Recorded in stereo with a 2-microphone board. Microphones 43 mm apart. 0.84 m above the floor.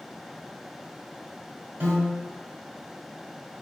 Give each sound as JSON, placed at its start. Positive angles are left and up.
{"t": 1.8, "sound": "a piano", "side_deg": -65, "distance_m": 1.2}